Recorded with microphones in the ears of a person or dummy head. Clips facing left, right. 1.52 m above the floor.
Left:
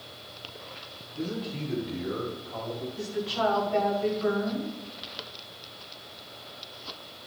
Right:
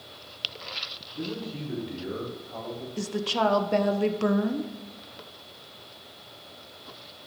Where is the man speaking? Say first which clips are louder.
Left 1 dB; 5° right (ahead or behind), 4.5 m; by 2.9 s centre (ahead or behind), 3.5 m.